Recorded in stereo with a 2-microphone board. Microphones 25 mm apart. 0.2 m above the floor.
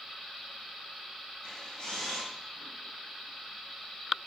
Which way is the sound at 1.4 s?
30° left (ahead or behind).